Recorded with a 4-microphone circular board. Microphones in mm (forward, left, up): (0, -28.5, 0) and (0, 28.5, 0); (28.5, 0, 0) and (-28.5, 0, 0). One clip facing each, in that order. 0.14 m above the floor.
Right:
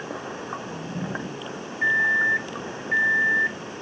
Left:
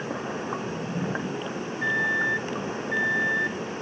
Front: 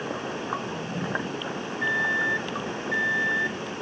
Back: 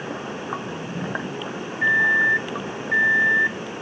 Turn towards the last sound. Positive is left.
turn(degrees=-135)